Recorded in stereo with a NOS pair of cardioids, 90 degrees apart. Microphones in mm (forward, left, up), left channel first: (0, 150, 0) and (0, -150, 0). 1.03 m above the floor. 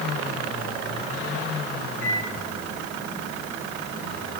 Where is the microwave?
70° left, 6.5 m.